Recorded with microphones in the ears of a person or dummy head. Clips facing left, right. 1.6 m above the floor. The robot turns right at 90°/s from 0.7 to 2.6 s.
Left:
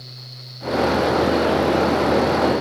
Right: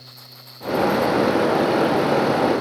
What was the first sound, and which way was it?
Only background noise.